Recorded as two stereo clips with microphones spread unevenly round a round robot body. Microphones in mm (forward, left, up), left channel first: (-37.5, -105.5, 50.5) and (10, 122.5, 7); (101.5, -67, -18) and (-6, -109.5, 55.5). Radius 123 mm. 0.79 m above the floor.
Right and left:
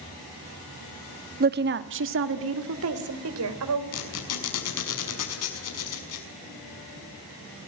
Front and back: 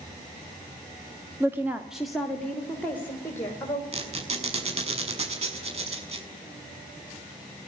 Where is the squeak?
125° right, 6 m.